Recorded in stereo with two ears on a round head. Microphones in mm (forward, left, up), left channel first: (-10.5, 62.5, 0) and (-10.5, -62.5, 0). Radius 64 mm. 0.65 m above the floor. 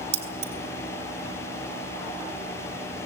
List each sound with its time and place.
0.1 s keys jangling: 50° right (ahead or behind), 3.5 m